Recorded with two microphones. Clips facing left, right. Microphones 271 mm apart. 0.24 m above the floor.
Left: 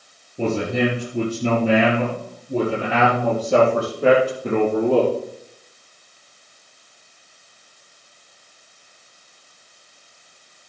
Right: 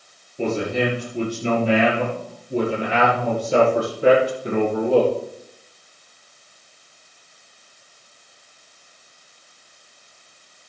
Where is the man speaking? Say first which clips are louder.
Left 1 dB; 50° left (ahead or behind), 4.5 m; by 5.1 s 55° left (ahead or behind), 8 m.